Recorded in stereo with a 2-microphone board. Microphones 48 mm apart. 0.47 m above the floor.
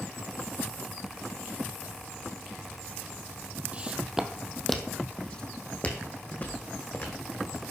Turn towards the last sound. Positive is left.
turn(degrees=40)  # may be behind; listen again after turning